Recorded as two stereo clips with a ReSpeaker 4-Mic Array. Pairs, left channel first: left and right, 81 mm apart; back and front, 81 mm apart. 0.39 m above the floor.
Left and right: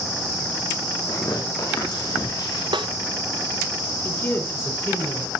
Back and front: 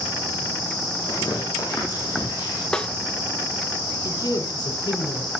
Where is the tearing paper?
130° left, 9 m.